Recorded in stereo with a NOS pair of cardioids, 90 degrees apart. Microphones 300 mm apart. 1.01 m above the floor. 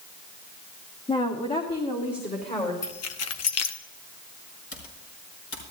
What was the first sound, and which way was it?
A woman speaking, 15° left.